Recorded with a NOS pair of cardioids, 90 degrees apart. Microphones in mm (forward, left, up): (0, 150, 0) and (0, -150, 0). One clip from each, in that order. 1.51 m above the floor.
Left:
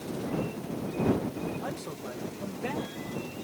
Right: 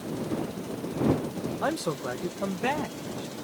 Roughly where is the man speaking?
Ahead right.